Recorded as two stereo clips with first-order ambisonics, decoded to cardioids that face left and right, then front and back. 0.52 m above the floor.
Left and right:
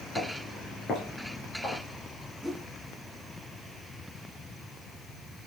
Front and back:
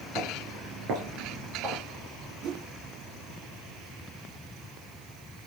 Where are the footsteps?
150° left, 7.5 m; by 1.8 s 155° left, 9 m.